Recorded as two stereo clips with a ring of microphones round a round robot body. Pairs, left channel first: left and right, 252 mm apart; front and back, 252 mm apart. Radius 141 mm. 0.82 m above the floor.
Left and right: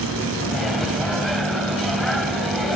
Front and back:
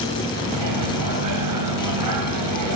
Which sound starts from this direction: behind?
A microwave, at 0.5 s.